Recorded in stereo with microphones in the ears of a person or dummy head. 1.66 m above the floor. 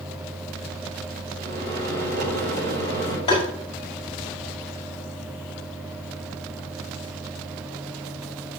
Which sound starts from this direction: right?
A microwave, at 1.4 s.